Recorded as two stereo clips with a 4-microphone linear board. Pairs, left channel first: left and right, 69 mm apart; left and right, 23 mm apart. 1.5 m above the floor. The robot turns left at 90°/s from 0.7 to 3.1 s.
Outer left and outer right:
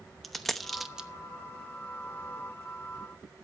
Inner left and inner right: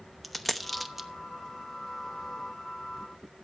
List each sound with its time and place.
0.2 s a dropped coin: centre (ahead or behind), 0.8 m; by 1.1 s 15° right (ahead or behind), 0.8 m